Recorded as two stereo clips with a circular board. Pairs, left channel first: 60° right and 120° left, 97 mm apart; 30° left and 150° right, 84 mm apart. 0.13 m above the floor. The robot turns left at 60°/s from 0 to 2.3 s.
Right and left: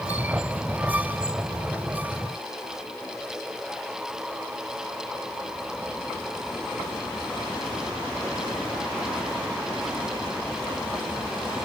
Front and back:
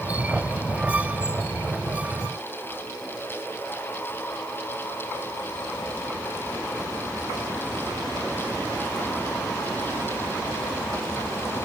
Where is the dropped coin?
I don't hear a dropped coin.